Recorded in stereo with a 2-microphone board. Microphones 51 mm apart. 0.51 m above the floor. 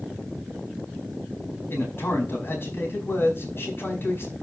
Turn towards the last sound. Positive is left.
turn(degrees=50)  # may be behind; listen again after turning